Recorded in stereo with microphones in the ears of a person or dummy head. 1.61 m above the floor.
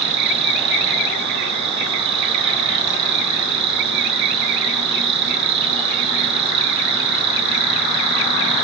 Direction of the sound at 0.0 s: 30° right (ahead or behind).